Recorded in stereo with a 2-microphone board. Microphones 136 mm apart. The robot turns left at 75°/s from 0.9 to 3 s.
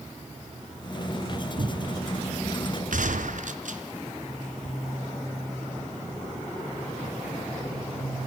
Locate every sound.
1.6 s a cupboard door: 55° right (ahead or behind), 1.0 m; by 2.0 s 30° right (ahead or behind), 1.0 m
2.9 s a gunshot: 75° right (ahead or behind), 2 m; by 3.8 s 70° right (ahead or behind), 2 m